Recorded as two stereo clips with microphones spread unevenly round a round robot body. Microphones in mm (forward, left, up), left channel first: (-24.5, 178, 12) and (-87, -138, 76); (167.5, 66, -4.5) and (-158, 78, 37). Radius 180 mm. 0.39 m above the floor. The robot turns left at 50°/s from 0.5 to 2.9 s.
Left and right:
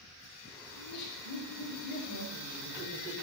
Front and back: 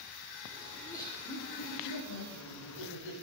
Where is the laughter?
90° left, 8 m; by 3.1 s 20° right, 8 m.